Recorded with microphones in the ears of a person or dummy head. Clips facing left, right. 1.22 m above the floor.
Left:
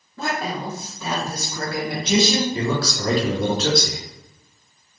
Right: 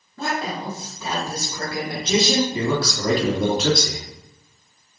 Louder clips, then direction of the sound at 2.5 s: Right 1 dB; 10° right (ahead or behind).